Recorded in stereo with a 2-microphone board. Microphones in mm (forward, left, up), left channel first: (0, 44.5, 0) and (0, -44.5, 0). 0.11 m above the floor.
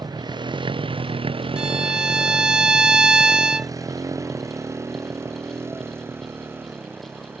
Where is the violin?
10° right (ahead or behind).